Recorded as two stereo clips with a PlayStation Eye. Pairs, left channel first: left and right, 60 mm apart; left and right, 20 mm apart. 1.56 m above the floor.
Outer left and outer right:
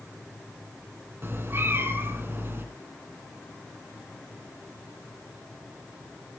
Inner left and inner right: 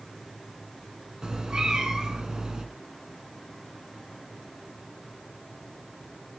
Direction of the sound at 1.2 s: 40° right (ahead or behind).